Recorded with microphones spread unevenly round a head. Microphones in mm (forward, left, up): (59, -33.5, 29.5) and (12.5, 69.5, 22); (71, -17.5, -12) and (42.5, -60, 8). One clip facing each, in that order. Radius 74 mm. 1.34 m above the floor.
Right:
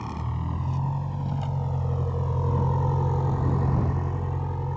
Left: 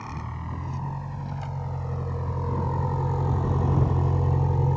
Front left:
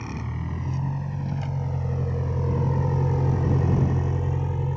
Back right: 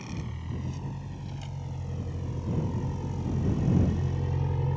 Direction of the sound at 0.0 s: 5° left.